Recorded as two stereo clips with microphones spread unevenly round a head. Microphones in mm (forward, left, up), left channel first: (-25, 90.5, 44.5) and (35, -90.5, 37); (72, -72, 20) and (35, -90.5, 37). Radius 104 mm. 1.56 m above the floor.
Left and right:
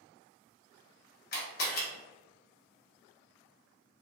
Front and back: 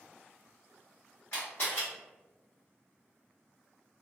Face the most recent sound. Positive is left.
turn(degrees=110)